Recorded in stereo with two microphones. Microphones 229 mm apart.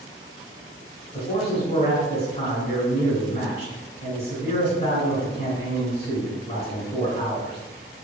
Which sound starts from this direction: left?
A man speaking, at 1.1 s.